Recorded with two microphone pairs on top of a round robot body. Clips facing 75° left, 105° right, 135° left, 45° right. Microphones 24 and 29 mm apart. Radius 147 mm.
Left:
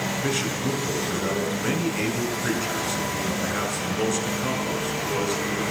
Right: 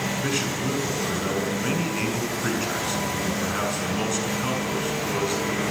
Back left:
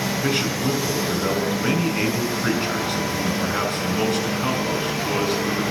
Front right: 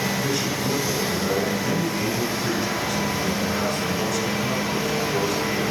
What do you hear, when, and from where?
0.2 s a man speaking: straight behind, 6 m